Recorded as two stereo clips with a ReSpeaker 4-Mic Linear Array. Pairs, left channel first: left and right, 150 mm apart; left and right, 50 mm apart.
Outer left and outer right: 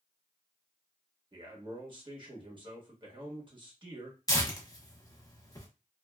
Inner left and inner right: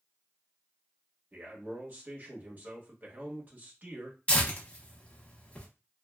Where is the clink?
No clink in this recording.